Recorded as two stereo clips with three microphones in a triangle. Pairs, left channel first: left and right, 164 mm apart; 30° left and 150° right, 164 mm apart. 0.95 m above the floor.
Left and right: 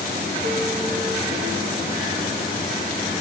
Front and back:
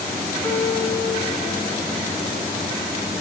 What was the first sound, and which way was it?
A piano, 45° right.